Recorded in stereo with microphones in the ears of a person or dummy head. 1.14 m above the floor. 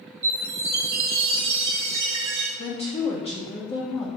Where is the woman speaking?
40° left (ahead or behind), 1.3 m.